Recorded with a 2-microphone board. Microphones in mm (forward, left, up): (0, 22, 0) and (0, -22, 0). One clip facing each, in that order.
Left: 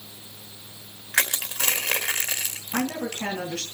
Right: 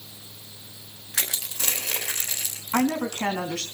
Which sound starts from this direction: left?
Crushing, at 1.1 s.